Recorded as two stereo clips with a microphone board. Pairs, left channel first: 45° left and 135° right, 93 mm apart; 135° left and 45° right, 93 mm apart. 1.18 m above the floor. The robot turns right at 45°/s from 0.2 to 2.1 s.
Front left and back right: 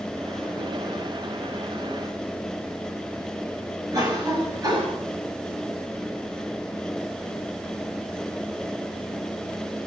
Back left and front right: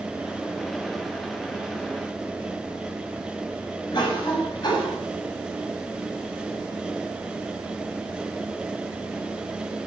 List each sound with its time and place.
3.9 s a cough: 175° left, 9 m